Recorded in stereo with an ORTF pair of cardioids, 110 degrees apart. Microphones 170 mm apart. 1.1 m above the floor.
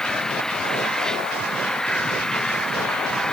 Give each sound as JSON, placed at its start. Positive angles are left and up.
{"t": 0.0, "sound": "an engine running", "azimuth_deg": 5}